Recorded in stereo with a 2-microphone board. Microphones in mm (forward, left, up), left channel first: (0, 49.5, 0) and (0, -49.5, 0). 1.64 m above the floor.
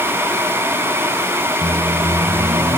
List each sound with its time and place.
1.6 s a microwave: 55° right (ahead or behind)